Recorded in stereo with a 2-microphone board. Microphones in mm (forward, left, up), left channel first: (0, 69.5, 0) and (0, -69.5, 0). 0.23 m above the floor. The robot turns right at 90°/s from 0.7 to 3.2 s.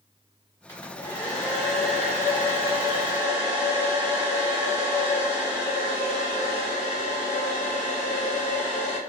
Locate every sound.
0.7 s a hair dryer: 20° left (ahead or behind), 1.5 m; by 9.0 s 15° right (ahead or behind), 1.5 m